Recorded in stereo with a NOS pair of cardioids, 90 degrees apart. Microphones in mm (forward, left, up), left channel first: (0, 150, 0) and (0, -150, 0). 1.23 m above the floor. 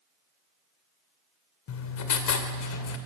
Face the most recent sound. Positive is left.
turn(degrees=65)